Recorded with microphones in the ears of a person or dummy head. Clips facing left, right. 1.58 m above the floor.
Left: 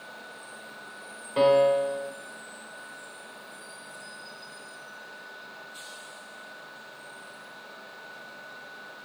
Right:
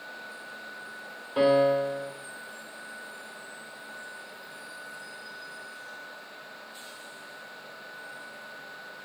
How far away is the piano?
About 1.9 m.